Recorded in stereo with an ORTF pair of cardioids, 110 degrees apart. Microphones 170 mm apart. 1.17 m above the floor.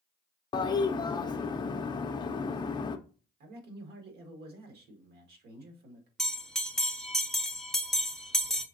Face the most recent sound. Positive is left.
turn(degrees=0)